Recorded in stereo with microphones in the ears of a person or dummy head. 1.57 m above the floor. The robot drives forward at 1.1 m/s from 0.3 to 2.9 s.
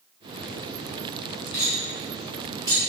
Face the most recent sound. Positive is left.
turn(degrees=15)  # may be behind; listen again after turning